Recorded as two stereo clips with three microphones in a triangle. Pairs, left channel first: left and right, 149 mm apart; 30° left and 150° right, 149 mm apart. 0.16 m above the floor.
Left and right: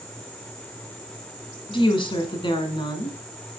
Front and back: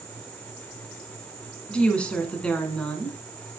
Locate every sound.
1.7 s a woman speaking: 105° left, 1.2 m